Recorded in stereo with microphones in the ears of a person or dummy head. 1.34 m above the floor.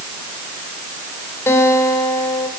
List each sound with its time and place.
1.5 s a guitar: 15° left (ahead or behind), 3 m